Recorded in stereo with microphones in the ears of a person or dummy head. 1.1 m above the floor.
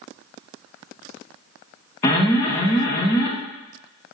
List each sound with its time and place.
2.0 s an alarm: 15° left (ahead or behind), 0.7 m